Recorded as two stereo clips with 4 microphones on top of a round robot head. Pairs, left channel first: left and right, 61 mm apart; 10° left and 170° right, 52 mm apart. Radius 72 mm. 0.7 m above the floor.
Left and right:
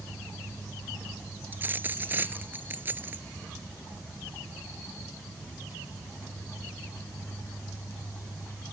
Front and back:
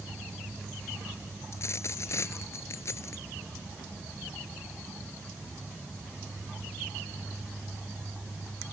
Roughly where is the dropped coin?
Ahead right.